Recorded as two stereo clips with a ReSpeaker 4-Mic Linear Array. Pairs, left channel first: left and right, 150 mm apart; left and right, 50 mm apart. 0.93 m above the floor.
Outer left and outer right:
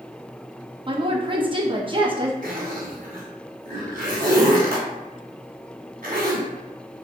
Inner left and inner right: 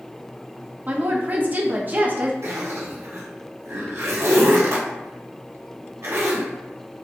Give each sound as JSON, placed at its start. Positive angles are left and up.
{"t": 0.9, "sound": "a woman speaking", "side_deg": -35, "distance_m": 1.0}
{"t": 2.4, "sound": "a zipper", "side_deg": -75, "distance_m": 2.0}